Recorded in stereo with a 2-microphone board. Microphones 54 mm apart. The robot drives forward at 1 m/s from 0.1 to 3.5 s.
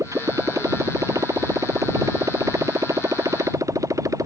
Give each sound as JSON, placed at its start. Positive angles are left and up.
{"t": 0.0, "sound": "a motorcycle", "side_deg": -75}